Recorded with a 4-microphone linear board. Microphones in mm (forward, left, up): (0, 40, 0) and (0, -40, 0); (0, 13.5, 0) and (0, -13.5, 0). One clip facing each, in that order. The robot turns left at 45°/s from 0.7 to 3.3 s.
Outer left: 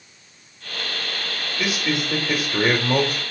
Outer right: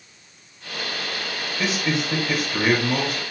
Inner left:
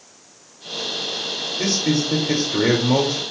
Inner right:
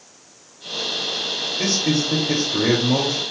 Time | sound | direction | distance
1.6 | a man speaking | 175° left | 1.6 m